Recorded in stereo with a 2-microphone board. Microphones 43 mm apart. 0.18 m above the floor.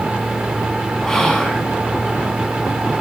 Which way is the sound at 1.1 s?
15° left (ahead or behind).